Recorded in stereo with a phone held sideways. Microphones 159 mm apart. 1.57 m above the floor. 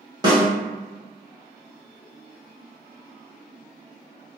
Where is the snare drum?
25° right (ahead or behind), 1.3 m.